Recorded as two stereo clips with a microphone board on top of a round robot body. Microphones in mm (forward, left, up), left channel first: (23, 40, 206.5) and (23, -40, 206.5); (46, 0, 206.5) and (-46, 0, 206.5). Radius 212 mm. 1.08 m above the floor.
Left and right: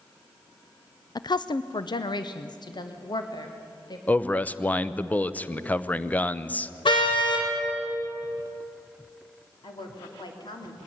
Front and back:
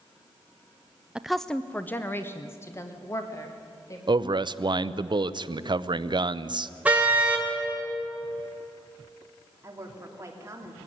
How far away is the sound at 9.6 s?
About 3 m.